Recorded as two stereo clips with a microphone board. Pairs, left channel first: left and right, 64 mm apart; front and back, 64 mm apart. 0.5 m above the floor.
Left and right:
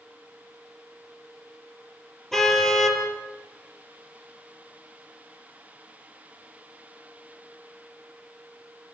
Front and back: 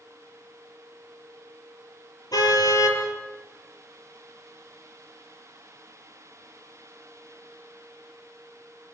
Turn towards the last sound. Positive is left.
turn(degrees=5)